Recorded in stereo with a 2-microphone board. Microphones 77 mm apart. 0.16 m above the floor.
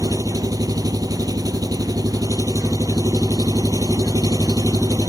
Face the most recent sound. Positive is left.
turn(degrees=-60)  # may be behind; listen again after turning